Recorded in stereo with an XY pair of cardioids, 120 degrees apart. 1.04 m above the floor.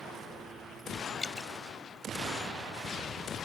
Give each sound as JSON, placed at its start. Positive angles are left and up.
{"t": 1.2, "sound": "dripping", "azimuth_deg": 20}